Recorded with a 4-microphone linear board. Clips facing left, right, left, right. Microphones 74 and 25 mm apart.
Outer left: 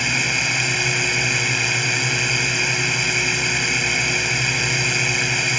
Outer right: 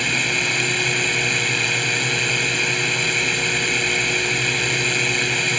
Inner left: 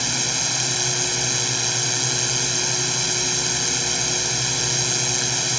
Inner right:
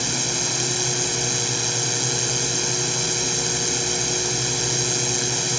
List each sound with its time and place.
0.0 s a drone: 5° left (ahead or behind)